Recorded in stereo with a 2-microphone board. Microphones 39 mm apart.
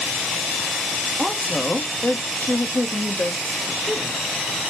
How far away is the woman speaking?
About 0.9 m.